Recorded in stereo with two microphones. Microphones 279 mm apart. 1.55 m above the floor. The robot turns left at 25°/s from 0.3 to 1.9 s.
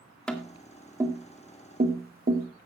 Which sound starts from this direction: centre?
Tapping, at 0.3 s.